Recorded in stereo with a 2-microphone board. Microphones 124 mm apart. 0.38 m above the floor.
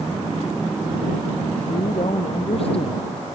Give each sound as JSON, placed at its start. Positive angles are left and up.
{"t": 1.6, "sound": "a woman speaking", "side_deg": 50}